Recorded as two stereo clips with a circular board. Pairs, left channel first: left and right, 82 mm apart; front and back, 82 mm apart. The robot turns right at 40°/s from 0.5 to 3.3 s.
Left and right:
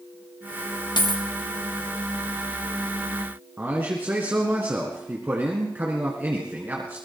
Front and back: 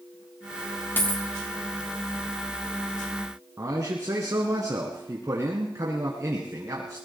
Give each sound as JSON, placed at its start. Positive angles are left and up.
{"t": 1.0, "sound": "a dropped coin", "azimuth_deg": 65, "distance_m": 3.0}
{"t": 3.6, "sound": "a man speaking", "azimuth_deg": -150, "distance_m": 1.9}